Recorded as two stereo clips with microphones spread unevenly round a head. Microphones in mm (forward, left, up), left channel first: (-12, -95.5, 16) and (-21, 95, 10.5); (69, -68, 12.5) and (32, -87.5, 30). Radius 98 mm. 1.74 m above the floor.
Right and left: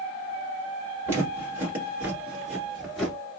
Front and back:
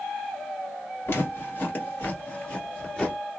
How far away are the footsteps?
About 1.8 m.